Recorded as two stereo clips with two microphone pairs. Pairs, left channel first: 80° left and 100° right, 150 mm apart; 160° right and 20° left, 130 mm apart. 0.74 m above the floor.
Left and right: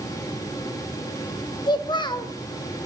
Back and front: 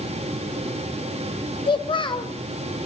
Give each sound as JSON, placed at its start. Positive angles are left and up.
{"t": 1.7, "sound": "a child speaking", "azimuth_deg": 145, "distance_m": 0.6}